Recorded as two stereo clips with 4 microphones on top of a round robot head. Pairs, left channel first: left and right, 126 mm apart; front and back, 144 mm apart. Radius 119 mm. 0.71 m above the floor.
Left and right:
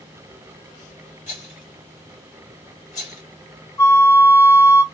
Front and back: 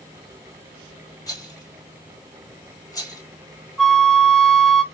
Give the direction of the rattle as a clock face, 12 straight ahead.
10 o'clock.